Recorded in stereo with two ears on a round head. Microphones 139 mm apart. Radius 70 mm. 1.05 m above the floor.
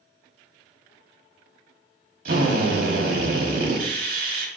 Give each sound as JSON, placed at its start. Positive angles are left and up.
{"t": 2.2, "sound": "a drill", "side_deg": -60, "distance_m": 2.0}